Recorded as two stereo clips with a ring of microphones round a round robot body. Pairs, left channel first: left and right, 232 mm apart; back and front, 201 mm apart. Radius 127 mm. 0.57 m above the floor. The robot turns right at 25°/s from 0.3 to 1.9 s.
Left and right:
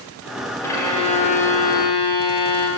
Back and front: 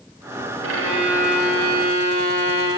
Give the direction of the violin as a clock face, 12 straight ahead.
12 o'clock.